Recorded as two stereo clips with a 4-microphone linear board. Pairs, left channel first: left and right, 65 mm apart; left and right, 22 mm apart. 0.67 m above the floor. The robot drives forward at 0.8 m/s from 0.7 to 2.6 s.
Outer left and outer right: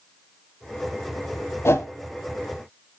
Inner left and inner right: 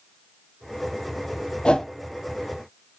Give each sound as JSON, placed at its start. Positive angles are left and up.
{"t": 1.6, "sound": "a whoosh", "side_deg": 45, "distance_m": 0.6}